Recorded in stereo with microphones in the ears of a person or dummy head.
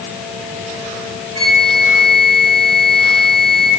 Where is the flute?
60° right (ahead or behind), 0.9 m.